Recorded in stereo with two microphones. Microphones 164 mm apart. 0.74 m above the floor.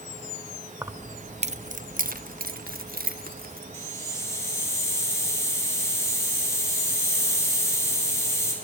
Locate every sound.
0.8 s keys jangling: 15° right (ahead or behind), 0.6 m; by 3.6 s 65° right (ahead or behind), 1.6 m
3.7 s a hiss: 15° left (ahead or behind), 5 m